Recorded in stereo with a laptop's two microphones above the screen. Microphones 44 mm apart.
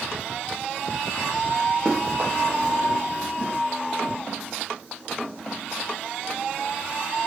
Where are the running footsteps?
20° right (ahead or behind), 4 m; by 3.6 s 35° right (ahead or behind), 3.5 m.